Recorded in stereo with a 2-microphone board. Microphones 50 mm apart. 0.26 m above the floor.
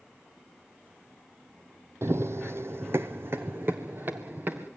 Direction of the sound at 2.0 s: 70° right (ahead or behind).